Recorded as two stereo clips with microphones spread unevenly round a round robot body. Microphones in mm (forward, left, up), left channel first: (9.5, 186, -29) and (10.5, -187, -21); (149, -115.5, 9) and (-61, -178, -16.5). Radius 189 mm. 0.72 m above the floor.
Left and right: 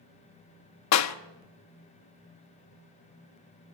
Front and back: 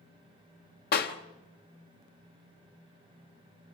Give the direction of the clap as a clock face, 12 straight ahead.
10 o'clock.